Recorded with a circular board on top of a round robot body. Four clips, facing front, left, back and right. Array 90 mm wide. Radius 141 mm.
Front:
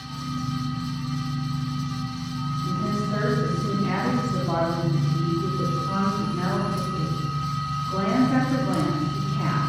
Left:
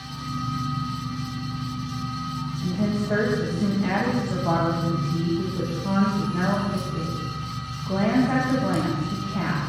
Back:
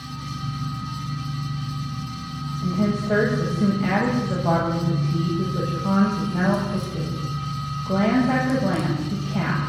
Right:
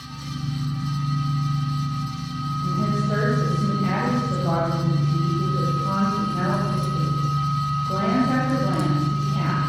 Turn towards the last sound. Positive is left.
turn(degrees=180)